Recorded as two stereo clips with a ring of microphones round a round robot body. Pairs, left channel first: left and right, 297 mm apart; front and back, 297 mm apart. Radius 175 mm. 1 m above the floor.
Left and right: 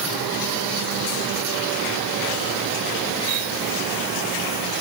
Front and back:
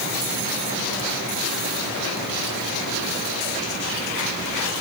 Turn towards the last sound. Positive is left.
No sound to turn to.